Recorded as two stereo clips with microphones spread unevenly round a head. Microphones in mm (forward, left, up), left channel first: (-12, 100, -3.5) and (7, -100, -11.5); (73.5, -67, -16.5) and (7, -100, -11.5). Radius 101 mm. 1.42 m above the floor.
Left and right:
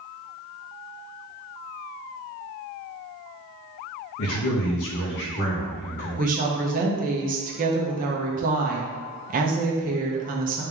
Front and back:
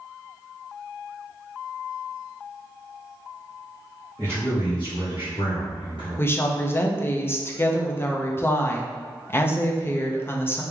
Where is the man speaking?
115° left, 0.8 m; by 6.2 s 40° left, 2.0 m.